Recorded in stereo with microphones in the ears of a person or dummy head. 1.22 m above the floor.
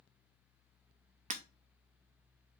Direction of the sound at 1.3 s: 40° right (ahead or behind).